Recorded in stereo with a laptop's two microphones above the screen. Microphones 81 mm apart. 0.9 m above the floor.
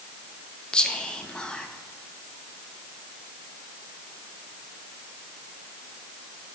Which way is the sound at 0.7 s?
10° left (ahead or behind).